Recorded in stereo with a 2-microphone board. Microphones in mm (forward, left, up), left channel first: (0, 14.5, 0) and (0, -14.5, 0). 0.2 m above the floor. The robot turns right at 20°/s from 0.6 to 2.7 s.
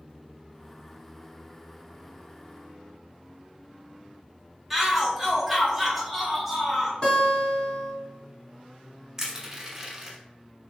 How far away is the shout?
About 1.1 m.